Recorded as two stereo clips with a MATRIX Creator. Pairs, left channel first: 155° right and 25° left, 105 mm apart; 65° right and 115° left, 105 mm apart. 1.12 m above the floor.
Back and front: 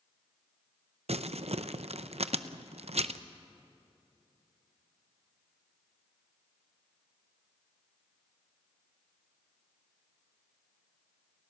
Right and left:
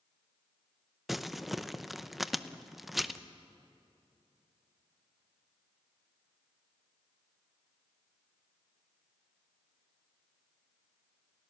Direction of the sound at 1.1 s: 25° left.